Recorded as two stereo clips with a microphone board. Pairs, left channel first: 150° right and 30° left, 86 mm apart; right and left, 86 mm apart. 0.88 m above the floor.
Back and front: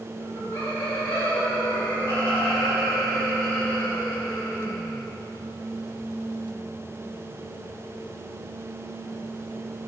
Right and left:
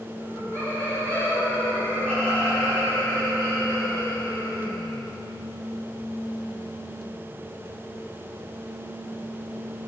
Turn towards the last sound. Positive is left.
turn(degrees=155)